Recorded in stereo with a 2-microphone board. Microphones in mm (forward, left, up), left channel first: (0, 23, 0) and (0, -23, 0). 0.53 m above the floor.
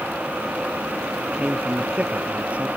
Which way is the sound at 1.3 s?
35° right (ahead or behind).